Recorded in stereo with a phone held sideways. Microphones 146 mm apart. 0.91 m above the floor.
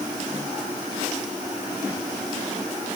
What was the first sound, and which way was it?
Only background noise.